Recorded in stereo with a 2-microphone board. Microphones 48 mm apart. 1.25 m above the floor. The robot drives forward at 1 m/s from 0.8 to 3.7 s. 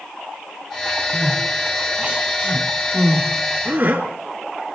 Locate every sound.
1.1 s crying: 25° right (ahead or behind), 4.5 m; by 4.0 s 50° right (ahead or behind), 2 m